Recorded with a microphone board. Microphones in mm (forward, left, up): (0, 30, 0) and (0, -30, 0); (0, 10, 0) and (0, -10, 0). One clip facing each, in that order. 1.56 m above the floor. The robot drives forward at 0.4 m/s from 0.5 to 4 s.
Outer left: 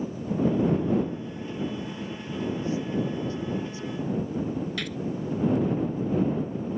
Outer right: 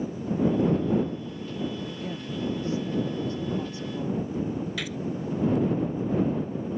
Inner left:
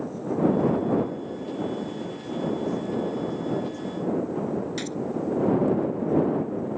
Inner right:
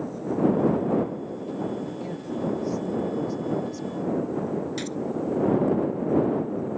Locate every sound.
1.9 s a woman speaking: 85° right; by 4.2 s 65° right (ahead or behind)
4.8 s a gunshot: 5° right (ahead or behind)